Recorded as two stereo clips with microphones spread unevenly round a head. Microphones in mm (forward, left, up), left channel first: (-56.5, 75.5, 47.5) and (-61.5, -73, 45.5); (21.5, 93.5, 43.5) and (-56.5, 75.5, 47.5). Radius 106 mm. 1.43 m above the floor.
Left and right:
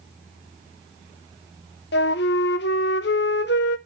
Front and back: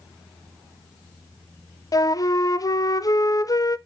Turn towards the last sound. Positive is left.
turn(degrees=60)